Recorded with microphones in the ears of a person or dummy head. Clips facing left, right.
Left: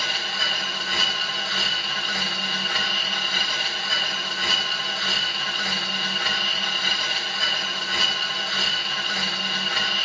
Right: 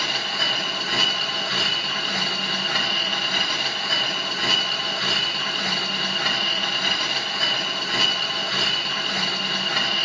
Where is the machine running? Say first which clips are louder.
Right 3 dB; 40° right (ahead or behind), 0.7 m.